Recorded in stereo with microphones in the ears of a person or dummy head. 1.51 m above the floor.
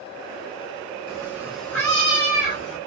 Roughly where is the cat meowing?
Right.